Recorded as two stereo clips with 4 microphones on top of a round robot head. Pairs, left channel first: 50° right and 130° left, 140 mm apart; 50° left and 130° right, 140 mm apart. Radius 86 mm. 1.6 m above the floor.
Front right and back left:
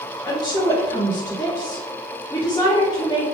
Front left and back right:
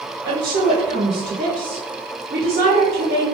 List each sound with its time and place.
0.2 s a woman speaking: 115° right, 1.5 m